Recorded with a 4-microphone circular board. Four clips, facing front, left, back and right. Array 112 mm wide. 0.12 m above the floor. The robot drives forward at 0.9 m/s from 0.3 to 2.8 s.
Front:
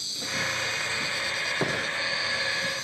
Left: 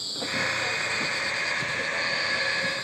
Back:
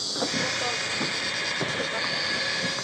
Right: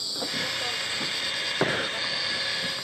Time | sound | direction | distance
0.0 | an insect | 175° right | ?
1.6 | breathing | 75° right | ?